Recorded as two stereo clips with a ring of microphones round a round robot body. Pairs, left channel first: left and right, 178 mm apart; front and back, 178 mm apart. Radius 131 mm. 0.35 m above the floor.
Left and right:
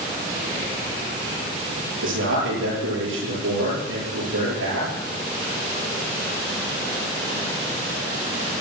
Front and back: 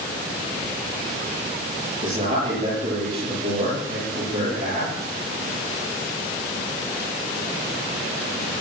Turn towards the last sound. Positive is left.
turn(degrees=-120)